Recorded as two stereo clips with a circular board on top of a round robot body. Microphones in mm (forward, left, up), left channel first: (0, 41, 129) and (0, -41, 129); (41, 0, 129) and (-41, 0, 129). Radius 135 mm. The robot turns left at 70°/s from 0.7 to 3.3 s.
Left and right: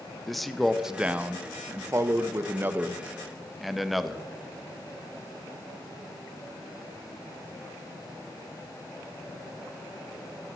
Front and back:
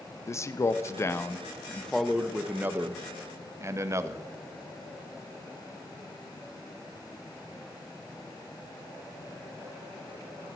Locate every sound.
0.3 s a man speaking: 5° left, 0.7 m; by 4.3 s straight behind, 0.7 m